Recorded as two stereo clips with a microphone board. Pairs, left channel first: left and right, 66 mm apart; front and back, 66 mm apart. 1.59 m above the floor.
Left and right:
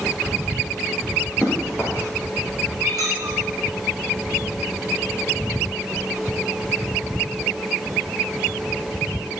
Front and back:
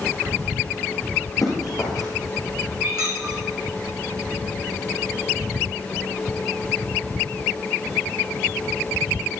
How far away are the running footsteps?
About 4.5 m.